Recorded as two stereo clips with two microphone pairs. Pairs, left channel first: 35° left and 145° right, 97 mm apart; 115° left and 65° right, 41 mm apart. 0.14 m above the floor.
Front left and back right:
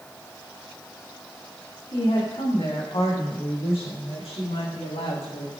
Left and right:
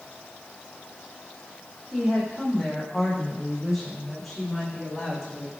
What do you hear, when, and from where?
1.9 s a woman speaking: 20° left, 8 m; by 5.5 s 30° left, 10.5 m